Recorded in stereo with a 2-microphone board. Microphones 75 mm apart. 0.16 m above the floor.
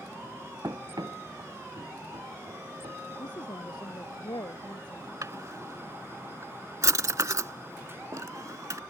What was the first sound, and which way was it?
Running footsteps, 45° right (ahead or behind).